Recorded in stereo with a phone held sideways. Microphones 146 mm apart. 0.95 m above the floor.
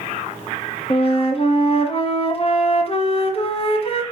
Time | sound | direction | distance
0.9 | a flute | 40° left (ahead or behind) | 1.3 m